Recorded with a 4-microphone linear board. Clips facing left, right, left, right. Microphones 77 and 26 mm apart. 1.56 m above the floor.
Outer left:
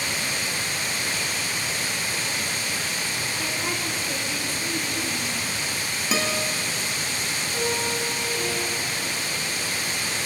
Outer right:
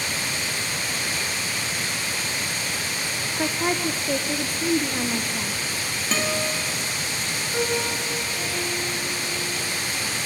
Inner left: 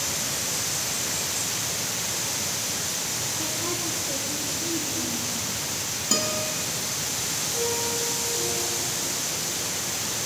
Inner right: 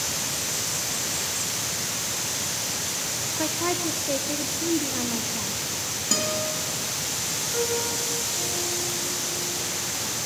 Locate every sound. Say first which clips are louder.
3.4 s a woman speaking: outer right 9 dB, inner right 3 dB; 50° right (ahead or behind), 1.2 m
6.1 s a guitar: outer right 1 dB, even; 5° left (ahead or behind), 2.5 m
7.5 s a piano: outer right 2 dB, inner right 1 dB; 30° right (ahead or behind), 7 m